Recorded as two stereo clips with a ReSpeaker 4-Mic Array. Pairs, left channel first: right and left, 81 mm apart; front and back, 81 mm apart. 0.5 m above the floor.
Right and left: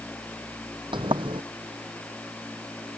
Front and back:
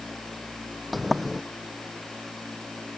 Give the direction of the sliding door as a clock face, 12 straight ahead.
9 o'clock.